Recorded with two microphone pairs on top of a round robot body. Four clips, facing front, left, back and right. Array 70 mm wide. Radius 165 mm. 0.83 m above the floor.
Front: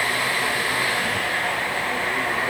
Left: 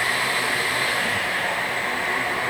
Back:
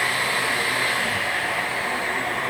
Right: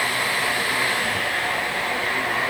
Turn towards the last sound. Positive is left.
No sound to turn to.